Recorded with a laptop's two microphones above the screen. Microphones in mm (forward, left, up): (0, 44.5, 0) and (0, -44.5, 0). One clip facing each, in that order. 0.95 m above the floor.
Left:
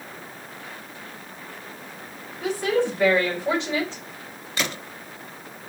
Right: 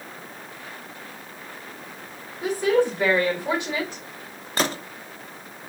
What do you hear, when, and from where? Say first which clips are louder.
2.4 s a woman speaking: right 2 dB; 15° right (ahead or behind), 3.5 m
4.6 s a gunshot: right 4 dB; 35° right (ahead or behind), 0.7 m